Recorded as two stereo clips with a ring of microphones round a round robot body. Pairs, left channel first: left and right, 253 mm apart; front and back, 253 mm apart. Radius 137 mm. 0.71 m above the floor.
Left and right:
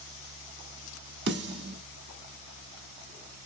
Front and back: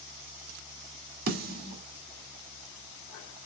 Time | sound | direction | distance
1.3 | a snare drum | 130° right | 1.6 m